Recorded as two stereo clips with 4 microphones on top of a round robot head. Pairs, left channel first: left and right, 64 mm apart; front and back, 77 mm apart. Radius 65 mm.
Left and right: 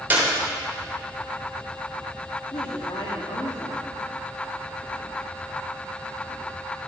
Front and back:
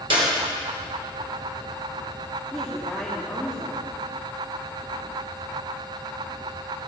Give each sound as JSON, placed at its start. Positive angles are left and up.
{"t": 0.1, "sound": "a clap", "azimuth_deg": -155, "distance_m": 3.5}
{"t": 2.5, "sound": "a woman speaking", "azimuth_deg": 100, "distance_m": 2.5}